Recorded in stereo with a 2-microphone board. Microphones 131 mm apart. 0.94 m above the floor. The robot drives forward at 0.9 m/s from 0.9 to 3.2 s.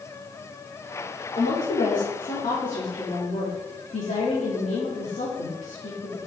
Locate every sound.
1.4 s a woman speaking: 65° left (ahead or behind), 2.5 m